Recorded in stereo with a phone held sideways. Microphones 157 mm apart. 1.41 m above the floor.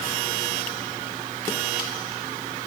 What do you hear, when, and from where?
Only background noise.